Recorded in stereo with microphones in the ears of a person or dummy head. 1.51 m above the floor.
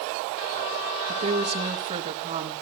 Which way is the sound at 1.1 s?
40° right (ahead or behind).